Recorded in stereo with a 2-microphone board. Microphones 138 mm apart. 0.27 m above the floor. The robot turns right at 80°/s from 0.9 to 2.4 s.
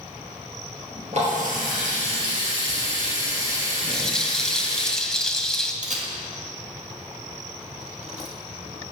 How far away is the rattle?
About 0.9 m.